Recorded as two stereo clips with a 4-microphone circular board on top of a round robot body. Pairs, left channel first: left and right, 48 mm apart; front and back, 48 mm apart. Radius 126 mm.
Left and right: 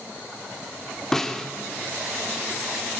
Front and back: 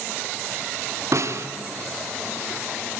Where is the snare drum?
170° left, 2.5 m.